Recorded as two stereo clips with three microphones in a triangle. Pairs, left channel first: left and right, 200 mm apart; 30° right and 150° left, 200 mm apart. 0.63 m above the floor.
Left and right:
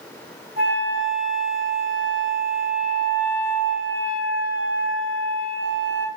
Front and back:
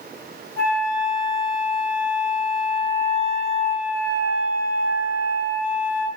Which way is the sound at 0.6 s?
45° right.